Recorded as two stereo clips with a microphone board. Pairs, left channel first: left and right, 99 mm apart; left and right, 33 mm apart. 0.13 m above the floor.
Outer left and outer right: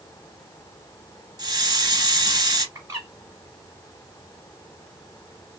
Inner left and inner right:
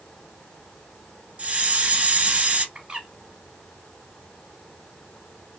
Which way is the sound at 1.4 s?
40° right (ahead or behind).